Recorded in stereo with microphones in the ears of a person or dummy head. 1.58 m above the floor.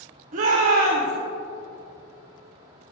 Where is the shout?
40° right (ahead or behind), 1.1 m.